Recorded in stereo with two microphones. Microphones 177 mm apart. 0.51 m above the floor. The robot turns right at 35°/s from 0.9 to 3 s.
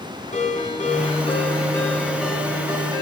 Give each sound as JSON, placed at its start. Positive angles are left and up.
{"t": 0.3, "sound": "a ringtone", "azimuth_deg": 135, "distance_m": 2.5}